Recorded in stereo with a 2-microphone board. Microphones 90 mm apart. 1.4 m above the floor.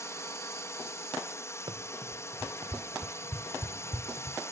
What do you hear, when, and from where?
0.0 s a drone: 30° left (ahead or behind)
1.7 s running footsteps: 65° right (ahead or behind); by 4.4 s 70° right (ahead or behind)